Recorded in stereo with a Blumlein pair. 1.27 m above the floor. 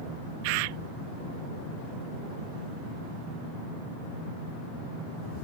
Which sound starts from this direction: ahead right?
A bird, at 0.4 s.